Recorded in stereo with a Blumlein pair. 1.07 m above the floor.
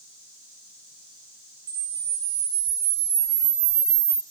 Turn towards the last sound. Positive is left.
turn(degrees=-55)